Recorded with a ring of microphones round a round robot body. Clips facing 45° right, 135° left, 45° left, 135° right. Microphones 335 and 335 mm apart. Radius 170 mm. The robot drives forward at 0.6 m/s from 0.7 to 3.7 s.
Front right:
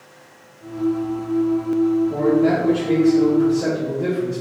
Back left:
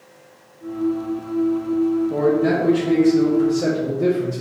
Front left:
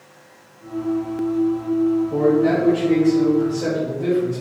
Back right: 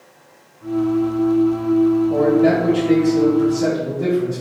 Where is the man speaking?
135° right, 2 m; by 4.4 s 150° right, 3 m.